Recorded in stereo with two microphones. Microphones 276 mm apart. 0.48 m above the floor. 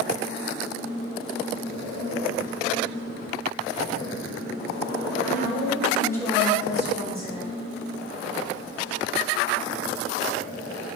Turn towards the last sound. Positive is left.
turn(degrees=-45)  # may be behind; listen again after turning